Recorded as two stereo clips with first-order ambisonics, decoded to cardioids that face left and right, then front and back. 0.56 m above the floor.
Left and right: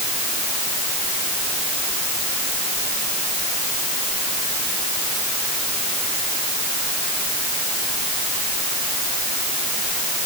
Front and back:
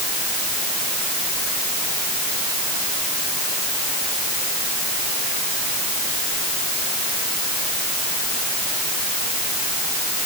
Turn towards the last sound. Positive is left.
No sound to turn to.